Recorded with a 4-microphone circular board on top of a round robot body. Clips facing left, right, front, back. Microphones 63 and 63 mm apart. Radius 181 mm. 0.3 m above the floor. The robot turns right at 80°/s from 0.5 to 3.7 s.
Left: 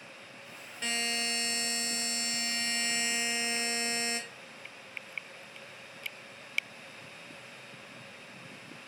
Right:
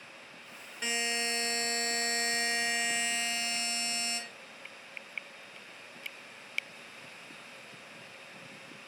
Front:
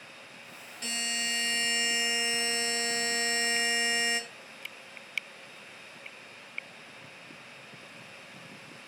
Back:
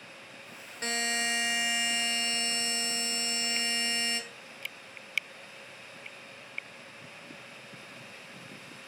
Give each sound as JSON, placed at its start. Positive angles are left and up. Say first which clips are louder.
{"t": 0.8, "sound": "a buzzer", "louder": "right 1 dB, back 4 dB", "azimuth_deg": -170, "distance_m": 1.0}